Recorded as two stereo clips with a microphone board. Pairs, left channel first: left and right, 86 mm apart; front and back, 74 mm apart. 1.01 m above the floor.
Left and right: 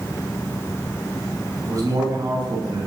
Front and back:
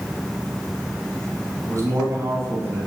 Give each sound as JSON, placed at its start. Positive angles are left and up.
{"t": 1.6, "sound": "a man speaking", "azimuth_deg": -135, "distance_m": 7.5}